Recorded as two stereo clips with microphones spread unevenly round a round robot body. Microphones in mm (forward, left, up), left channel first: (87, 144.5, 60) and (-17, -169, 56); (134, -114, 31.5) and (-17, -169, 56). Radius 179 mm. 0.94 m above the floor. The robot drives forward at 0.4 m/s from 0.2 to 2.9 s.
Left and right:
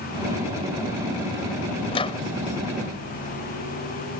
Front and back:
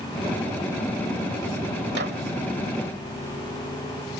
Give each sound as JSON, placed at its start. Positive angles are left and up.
{"t": 1.9, "sound": "a microwave", "azimuth_deg": 145}